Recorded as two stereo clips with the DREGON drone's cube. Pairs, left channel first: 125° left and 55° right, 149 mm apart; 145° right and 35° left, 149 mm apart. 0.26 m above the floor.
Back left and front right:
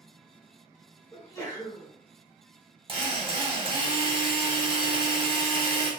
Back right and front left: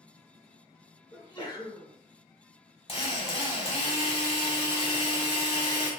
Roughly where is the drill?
Right.